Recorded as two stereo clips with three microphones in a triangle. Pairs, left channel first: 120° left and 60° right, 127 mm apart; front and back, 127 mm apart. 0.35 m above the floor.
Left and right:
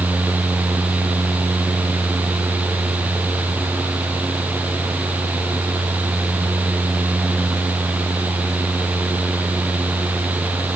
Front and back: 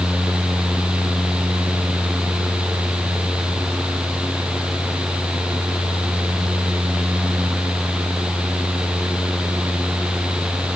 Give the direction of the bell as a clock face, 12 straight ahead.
No bell in this recording.